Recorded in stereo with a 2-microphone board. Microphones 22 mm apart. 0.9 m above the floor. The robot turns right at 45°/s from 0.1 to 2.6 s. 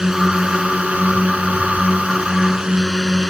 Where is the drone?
150° right; by 3.3 s 35° right.